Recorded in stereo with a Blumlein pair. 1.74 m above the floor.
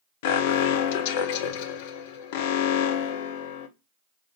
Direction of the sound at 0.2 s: 50° left.